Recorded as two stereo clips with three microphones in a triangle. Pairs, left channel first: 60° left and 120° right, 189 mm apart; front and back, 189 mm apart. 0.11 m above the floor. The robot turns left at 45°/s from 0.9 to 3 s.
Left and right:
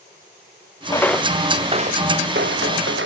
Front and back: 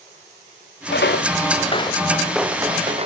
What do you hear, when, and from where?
0.9 s footsteps: 10° right, 0.6 m; by 3.1 s 125° right, 1.7 m